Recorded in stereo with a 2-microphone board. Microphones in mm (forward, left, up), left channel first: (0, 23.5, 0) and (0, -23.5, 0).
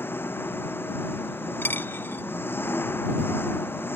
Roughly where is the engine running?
Left.